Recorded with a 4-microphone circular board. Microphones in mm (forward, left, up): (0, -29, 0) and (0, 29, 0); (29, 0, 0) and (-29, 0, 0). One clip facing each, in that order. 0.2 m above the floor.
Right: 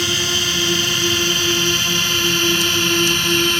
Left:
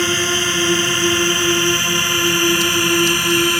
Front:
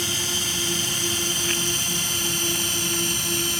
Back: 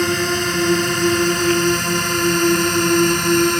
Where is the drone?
150° left; by 3.6 s 165° left.